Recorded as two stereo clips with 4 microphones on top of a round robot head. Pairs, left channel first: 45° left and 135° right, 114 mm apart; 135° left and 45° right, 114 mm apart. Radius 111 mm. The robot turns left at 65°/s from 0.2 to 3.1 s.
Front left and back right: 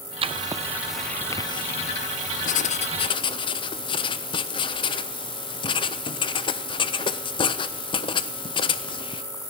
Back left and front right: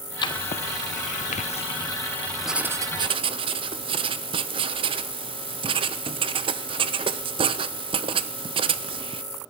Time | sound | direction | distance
0.2 | writing | 175° right | 0.5 m